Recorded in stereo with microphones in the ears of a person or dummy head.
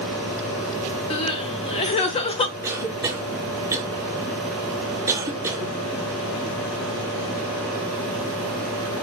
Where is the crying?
30° left (ahead or behind), 0.5 m.